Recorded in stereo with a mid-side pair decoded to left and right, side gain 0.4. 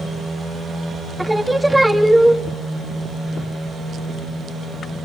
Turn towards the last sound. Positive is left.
turn(degrees=-15)